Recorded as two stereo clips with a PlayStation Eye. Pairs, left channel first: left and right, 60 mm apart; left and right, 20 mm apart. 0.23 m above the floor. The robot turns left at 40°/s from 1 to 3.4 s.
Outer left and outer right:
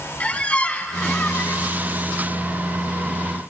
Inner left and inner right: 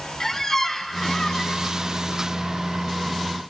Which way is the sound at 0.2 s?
155° left.